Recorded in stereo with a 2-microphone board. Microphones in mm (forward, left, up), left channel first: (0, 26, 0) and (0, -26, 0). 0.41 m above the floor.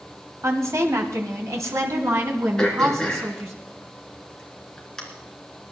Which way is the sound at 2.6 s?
10° left (ahead or behind).